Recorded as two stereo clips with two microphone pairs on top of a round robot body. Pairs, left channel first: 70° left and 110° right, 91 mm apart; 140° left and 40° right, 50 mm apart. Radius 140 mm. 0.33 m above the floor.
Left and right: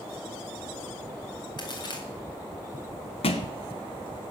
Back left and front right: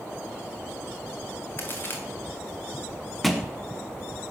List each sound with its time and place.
1.6 s a crack: 105° left, 3 m
3.2 s a thud: 50° left, 1.1 m